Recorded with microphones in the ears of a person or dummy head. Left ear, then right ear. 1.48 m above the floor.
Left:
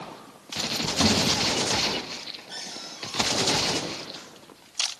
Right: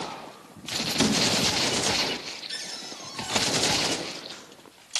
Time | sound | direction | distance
1.0 | a thud | 50° right (ahead or behind) | 1.7 m
2.5 | a cupboard door | 75° right (ahead or behind) | 5.5 m